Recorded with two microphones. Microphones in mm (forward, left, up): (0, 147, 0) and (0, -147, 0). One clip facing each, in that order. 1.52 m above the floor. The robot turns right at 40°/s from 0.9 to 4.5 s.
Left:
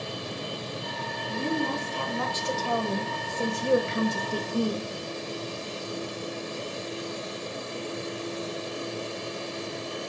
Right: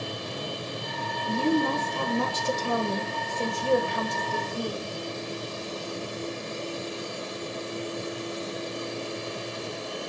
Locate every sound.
1.3 s a woman speaking: 80° right, 1.3 m; by 4.9 s 50° left, 1.3 m